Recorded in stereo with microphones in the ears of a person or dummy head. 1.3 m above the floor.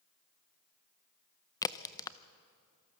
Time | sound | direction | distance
1.6 | a crack | 20° left (ahead or behind) | 0.6 m